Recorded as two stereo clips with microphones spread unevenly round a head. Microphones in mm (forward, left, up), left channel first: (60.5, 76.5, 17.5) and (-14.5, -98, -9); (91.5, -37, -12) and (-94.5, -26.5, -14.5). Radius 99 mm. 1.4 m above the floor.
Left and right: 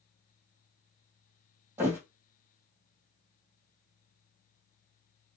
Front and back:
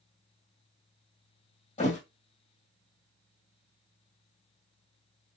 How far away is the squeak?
I don't hear a squeak.